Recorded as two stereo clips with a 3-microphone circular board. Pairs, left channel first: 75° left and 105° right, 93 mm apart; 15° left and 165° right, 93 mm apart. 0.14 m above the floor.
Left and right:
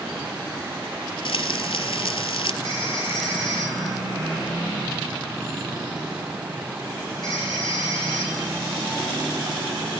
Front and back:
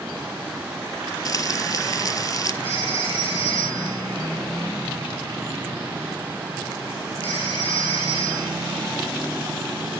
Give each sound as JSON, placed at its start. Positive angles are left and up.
{"t": 1.2, "sound": "frying", "azimuth_deg": 65, "distance_m": 0.7}
{"t": 2.6, "sound": "a phone ringing", "azimuth_deg": 30, "distance_m": 9.5}